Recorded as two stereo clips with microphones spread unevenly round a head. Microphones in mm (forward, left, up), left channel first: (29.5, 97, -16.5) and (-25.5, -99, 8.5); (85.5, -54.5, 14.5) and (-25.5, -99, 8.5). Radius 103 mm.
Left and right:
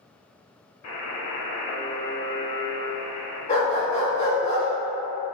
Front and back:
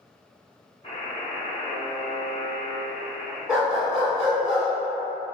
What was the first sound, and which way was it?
A buzzer, 90° left.